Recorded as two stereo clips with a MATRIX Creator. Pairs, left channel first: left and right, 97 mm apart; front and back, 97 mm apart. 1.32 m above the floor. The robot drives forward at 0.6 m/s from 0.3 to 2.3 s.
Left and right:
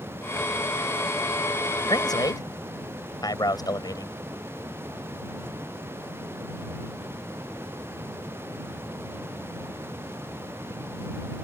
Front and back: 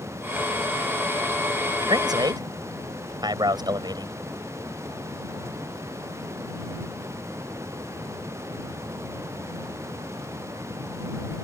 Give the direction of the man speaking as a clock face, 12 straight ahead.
8 o'clock.